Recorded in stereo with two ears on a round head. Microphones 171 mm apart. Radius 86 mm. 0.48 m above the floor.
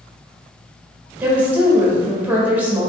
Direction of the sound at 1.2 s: 10° right (ahead or behind).